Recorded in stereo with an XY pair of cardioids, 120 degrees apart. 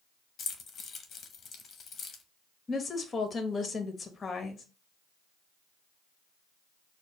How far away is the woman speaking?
About 1.1 m.